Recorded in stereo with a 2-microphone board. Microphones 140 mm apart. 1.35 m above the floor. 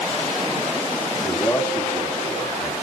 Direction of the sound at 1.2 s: 20° left (ahead or behind).